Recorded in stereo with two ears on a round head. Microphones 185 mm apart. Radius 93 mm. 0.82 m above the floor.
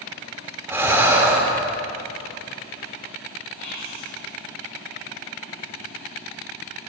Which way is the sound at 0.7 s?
10° right (ahead or behind).